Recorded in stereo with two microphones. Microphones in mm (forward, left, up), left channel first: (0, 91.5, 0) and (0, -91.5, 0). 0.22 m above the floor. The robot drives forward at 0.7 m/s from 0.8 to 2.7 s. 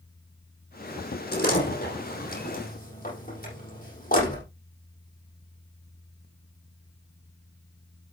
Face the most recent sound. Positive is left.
turn(degrees=50)  # may be behind; listen again after turning